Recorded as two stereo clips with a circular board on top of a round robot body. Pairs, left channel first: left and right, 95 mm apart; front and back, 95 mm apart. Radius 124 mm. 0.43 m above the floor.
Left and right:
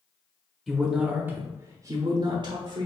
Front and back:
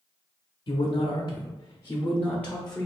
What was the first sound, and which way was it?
A man speaking, 5° left.